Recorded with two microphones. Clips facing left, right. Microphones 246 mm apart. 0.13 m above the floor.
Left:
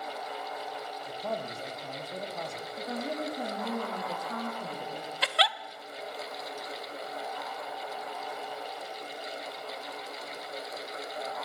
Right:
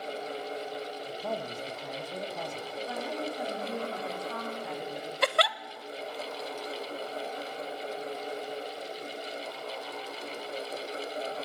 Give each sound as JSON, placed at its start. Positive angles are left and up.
{"t": 1.1, "sound": "a man speaking", "side_deg": -5, "distance_m": 3.5}
{"t": 2.8, "sound": "a woman speaking", "side_deg": 35, "distance_m": 8.5}
{"t": 5.2, "sound": "a giggle", "side_deg": -50, "distance_m": 0.7}